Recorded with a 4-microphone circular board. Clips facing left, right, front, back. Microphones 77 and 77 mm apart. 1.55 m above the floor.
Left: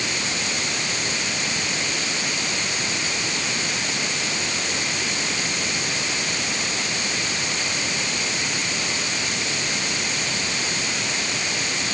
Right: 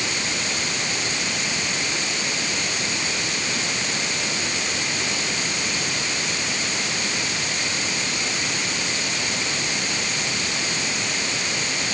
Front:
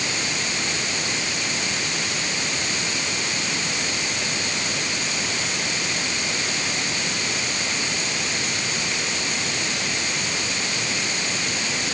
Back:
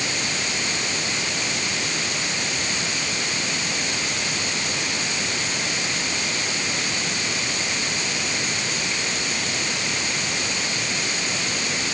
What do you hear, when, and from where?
Only background noise.